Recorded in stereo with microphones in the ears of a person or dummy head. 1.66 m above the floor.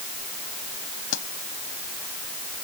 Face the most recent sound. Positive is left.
turn(degrees=80)